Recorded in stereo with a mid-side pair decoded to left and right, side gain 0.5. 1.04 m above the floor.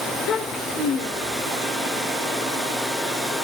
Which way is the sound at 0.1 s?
70° left.